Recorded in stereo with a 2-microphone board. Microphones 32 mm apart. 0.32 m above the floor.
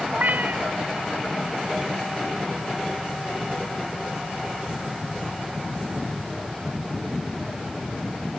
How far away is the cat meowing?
About 1.0 m.